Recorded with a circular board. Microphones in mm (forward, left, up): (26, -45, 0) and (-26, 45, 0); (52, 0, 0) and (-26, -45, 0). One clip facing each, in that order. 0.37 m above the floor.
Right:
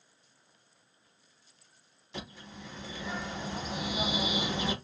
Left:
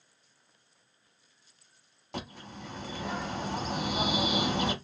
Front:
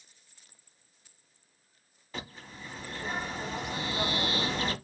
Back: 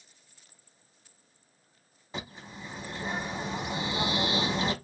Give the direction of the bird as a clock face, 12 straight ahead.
7 o'clock.